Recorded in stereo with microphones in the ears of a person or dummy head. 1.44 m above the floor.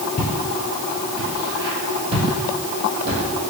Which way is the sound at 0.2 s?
20° left (ahead or behind).